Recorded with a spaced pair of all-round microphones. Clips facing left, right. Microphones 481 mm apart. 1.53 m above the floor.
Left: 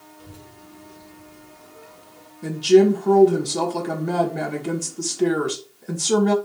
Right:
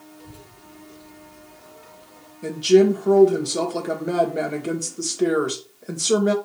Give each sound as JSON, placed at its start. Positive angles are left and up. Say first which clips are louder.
{"t": 0.2, "sound": "a child speaking", "louder": "even", "side_deg": 35, "distance_m": 3.0}
{"t": 2.4, "sound": "a woman speaking", "louder": "left 1 dB", "side_deg": 10, "distance_m": 1.7}